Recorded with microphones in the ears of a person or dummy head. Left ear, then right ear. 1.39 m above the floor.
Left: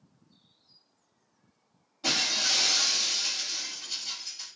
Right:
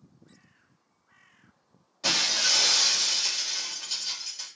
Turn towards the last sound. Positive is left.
turn(degrees=-40)  # may be behind; listen again after turning